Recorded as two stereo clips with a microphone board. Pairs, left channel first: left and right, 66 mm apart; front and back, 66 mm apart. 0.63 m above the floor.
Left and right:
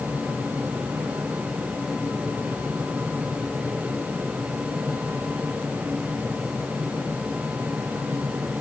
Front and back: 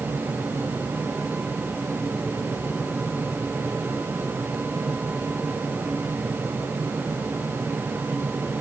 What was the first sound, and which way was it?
Only background noise.